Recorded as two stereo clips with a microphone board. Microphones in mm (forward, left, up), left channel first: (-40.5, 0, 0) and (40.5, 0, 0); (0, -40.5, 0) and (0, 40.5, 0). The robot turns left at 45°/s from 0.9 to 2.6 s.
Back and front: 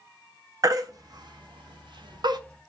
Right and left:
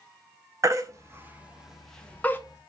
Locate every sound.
0.6 s a baby crying: 40° left, 0.5 m; by 2.4 s 25° right, 0.5 m